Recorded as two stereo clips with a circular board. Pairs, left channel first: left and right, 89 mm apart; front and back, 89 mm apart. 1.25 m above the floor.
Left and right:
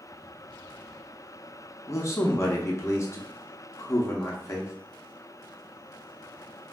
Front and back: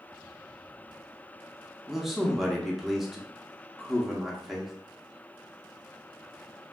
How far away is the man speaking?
About 0.6 m.